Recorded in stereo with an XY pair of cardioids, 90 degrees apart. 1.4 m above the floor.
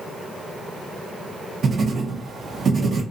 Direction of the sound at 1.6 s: 55° right.